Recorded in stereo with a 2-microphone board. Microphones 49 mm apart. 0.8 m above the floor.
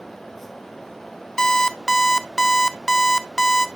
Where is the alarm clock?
10° left (ahead or behind), 0.6 m.